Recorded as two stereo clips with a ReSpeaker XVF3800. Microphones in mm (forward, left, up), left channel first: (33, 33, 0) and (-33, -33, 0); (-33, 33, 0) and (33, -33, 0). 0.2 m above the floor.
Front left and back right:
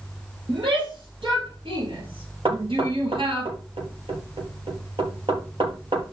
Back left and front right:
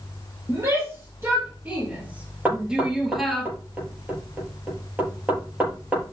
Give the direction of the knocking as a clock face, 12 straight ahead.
4 o'clock.